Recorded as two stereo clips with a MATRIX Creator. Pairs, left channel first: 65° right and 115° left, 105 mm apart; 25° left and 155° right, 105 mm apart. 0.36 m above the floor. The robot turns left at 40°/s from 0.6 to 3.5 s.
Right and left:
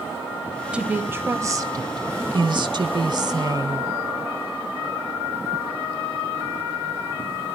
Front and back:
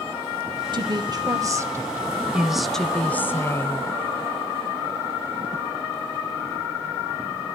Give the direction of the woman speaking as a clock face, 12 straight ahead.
6 o'clock.